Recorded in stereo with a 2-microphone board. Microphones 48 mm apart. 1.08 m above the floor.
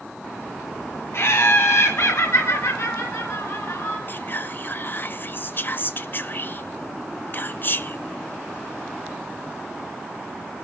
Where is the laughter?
60° left (ahead or behind), 3 m; by 4.0 s 85° left, 5 m.